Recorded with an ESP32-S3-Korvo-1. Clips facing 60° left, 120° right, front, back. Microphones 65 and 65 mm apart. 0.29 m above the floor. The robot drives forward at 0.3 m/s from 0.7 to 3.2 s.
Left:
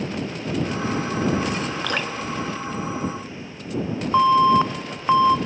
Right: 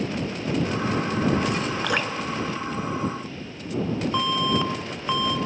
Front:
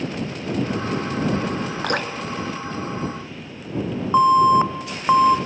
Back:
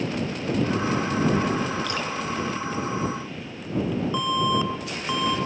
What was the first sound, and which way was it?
Dripping, 35° right.